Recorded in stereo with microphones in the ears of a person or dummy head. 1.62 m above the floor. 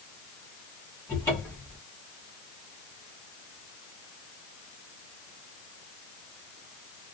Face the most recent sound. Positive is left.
turn(degrees=5)  # may be behind; listen again after turning